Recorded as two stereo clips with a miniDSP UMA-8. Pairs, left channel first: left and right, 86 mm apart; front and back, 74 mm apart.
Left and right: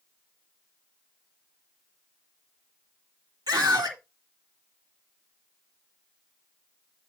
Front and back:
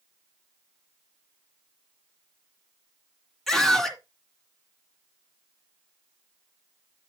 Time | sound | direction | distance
3.5 | a scream | 85° right | 2 m